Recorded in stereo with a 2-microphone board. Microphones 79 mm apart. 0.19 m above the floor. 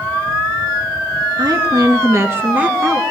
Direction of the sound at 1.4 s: 60° right (ahead or behind).